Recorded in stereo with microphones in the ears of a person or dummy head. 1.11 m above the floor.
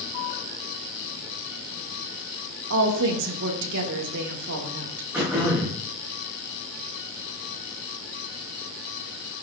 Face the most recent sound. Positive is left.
turn(degrees=-10)  # may be behind; listen again after turning